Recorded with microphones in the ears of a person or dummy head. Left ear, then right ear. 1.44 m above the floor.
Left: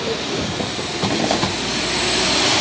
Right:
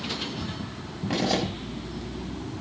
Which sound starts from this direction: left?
A zipper, at 1.1 s.